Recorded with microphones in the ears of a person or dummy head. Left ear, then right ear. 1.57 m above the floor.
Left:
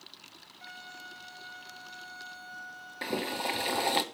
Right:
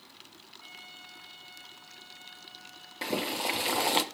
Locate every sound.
0.6 s a violin: 45° left (ahead or behind), 4 m
3.0 s boiling: 5° right (ahead or behind), 0.9 m